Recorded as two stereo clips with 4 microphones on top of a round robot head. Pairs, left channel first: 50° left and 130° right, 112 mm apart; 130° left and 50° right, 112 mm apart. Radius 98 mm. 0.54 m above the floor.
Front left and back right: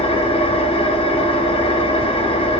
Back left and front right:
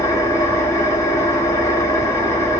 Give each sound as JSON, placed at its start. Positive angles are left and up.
{"t": 0.0, "sound": "an engine running", "azimuth_deg": 70, "distance_m": 0.9}